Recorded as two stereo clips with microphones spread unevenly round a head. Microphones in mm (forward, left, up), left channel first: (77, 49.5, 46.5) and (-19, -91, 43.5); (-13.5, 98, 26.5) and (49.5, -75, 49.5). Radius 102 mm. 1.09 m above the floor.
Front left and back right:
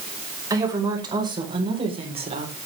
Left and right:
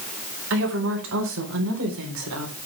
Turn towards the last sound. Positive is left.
turn(degrees=-75)